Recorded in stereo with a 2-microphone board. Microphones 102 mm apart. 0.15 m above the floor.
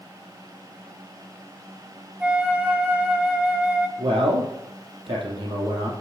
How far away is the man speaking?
About 3.5 m.